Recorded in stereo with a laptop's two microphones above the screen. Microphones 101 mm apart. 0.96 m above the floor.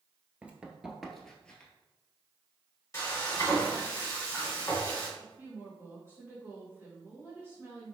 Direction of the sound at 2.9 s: 30° left (ahead or behind).